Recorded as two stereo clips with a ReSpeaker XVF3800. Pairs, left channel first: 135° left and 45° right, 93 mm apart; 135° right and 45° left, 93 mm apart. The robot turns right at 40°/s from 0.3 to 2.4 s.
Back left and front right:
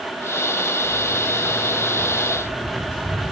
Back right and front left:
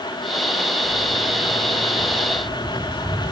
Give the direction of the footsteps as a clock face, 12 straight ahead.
1 o'clock.